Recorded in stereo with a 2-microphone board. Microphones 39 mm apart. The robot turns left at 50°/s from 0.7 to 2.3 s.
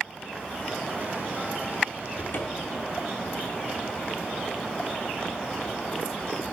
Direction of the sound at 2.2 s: 55° left (ahead or behind).